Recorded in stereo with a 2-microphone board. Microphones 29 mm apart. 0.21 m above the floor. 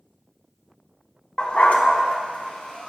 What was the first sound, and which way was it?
A dog barking, 35° left (ahead or behind).